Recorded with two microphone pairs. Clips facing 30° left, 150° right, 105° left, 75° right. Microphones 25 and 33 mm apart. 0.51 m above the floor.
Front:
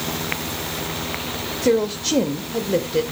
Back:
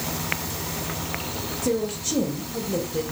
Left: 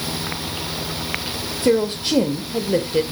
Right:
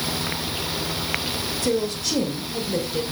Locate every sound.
1.6 s a woman speaking: 55° left, 1.4 m